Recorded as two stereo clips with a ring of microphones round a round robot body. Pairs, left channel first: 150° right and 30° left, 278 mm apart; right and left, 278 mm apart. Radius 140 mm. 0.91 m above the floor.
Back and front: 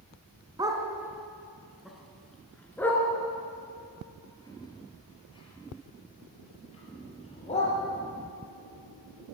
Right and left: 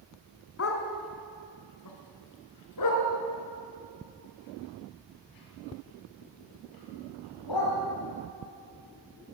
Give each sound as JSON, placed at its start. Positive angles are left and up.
{"t": 0.6, "sound": "a dog barking", "azimuth_deg": -45, "distance_m": 2.5}